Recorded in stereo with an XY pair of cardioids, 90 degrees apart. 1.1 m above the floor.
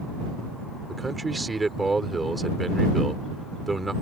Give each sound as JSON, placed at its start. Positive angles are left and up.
{"t": 0.9, "sound": "a man speaking", "azimuth_deg": -20}